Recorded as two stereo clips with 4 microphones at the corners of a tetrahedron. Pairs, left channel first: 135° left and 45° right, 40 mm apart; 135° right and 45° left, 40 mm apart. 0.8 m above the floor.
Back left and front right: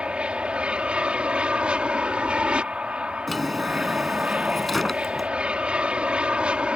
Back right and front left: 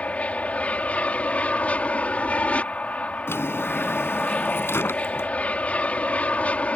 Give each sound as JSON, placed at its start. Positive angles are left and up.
{"t": 0.0, "sound": "an aircraft", "azimuth_deg": -100}
{"t": 3.3, "sound": "a drawer", "azimuth_deg": -140}